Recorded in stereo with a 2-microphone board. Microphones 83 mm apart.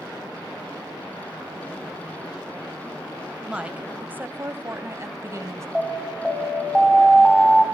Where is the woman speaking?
10° right (ahead or behind), 1.3 m; by 5.7 s 35° right (ahead or behind), 2.0 m.